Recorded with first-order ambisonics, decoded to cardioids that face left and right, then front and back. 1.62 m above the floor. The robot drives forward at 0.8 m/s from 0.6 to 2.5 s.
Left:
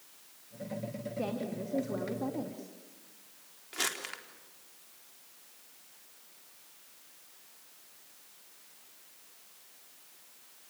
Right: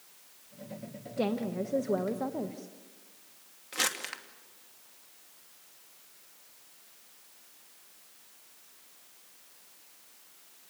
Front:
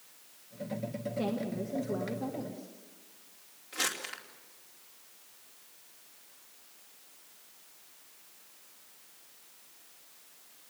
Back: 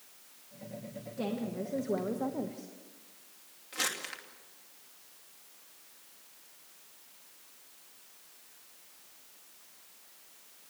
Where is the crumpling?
95° right, 2.5 m.